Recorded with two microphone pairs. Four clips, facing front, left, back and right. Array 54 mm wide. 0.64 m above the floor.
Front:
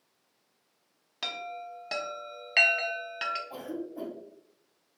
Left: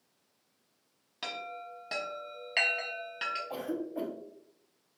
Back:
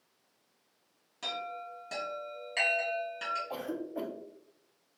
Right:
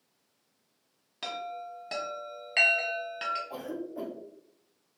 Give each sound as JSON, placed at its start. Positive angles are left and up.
{"t": 1.2, "sound": "a chime", "azimuth_deg": 0, "distance_m": 0.7}
{"t": 3.5, "sound": "a cough", "azimuth_deg": 155, "distance_m": 0.7}